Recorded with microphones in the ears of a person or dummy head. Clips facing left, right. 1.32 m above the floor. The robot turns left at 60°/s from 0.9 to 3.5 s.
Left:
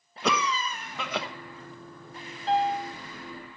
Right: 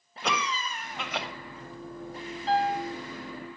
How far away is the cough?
About 1.0 m.